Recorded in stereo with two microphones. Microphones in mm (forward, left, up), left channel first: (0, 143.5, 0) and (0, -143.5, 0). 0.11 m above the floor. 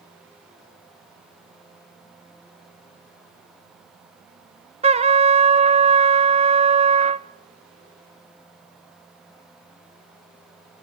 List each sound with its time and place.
4.8 s a trumpet: 20° right (ahead or behind), 0.7 m